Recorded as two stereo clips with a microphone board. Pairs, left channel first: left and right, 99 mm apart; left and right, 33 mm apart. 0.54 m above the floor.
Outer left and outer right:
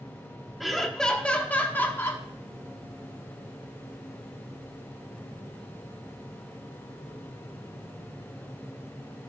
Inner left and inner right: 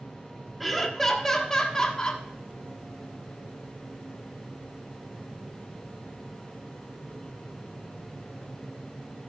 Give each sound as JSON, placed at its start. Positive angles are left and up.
{"t": 0.6, "sound": "laughter", "side_deg": 0, "distance_m": 1.2}